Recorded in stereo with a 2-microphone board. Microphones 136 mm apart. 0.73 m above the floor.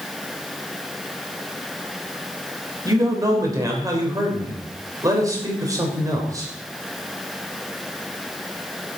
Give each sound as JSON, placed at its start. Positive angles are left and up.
{"t": 2.9, "sound": "a man speaking", "side_deg": -25, "distance_m": 3.5}